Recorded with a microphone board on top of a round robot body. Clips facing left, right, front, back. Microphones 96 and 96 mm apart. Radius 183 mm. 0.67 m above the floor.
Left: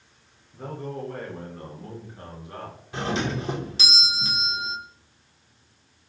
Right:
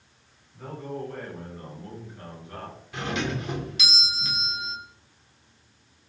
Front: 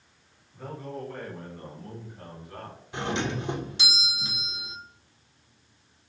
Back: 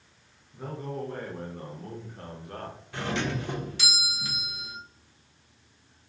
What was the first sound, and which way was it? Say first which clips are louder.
A man speaking: left 1 dB, back 2 dB; 105° left.